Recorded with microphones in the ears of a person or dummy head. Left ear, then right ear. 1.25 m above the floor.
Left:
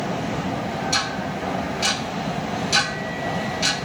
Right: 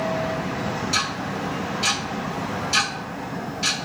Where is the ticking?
60° left (ahead or behind), 0.8 m.